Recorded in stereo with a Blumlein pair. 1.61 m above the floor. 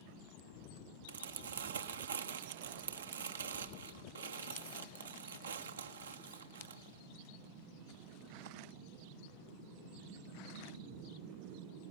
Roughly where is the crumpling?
Right.